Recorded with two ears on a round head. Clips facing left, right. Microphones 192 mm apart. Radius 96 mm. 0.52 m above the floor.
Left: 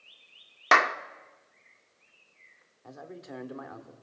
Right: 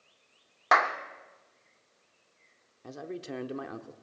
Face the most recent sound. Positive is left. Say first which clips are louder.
# right 5 dB
turn(degrees=-40)  # may be behind; listen again after turning